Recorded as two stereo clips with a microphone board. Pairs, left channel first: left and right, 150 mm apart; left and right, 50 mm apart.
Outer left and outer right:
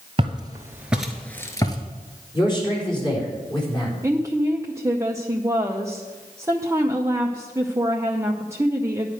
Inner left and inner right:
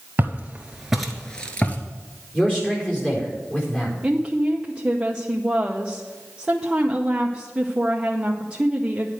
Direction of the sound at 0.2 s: 35° right (ahead or behind).